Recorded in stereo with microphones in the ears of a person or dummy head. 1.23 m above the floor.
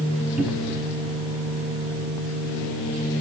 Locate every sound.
0.4 s a cupboard door: 10° right (ahead or behind), 1.0 m